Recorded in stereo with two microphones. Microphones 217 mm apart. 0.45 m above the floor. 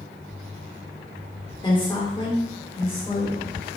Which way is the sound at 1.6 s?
20° left (ahead or behind).